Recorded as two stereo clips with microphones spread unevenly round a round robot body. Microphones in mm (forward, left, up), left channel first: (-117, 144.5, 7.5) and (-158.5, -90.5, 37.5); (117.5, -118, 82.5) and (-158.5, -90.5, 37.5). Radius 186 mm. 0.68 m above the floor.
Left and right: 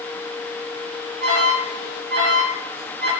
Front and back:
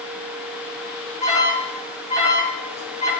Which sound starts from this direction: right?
An alarm, at 1.2 s.